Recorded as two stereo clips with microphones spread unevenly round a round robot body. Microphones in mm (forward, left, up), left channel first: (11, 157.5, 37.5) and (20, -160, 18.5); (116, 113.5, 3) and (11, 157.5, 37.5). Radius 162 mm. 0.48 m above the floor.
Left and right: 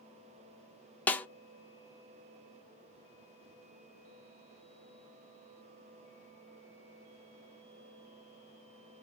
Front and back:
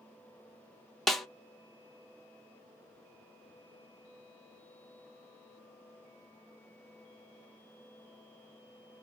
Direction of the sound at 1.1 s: 5° left.